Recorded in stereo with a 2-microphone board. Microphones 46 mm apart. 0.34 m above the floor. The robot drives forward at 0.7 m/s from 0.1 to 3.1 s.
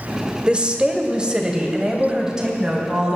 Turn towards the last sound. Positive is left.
turn(degrees=-10)  # may be behind; listen again after turning